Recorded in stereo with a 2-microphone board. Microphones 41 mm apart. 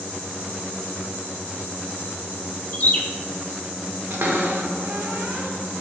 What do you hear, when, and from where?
2.7 s a bird: 40° left (ahead or behind), 0.6 m
4.1 s a cupboard door: 65° right (ahead or behind), 0.7 m